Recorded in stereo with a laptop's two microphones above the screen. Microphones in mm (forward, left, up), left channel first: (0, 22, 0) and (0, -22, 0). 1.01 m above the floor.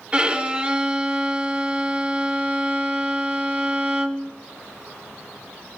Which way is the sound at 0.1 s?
20° right (ahead or behind).